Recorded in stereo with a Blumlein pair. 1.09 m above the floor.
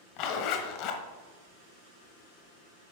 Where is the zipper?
40° left, 0.9 m.